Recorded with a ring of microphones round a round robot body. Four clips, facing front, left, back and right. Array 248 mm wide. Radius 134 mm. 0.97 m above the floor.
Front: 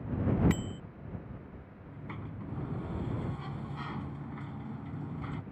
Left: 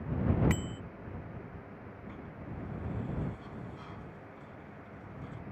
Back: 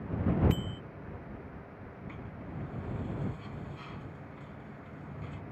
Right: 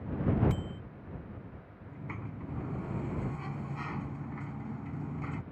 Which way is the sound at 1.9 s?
55° right.